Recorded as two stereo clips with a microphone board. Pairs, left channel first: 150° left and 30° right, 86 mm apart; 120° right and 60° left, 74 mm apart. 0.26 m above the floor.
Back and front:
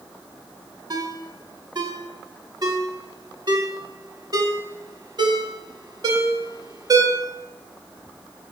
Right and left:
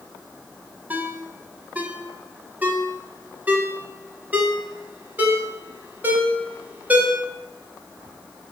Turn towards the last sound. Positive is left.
turn(degrees=0)